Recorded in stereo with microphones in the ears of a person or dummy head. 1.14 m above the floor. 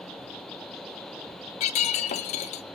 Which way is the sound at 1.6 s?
40° left (ahead or behind).